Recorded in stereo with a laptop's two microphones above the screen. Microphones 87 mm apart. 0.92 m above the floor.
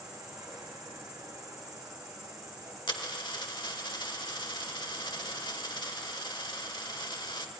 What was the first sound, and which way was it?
An insect, 40° right (ahead or behind).